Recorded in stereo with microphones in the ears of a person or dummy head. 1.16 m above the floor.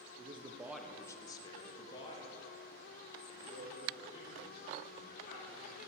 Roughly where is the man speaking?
Right.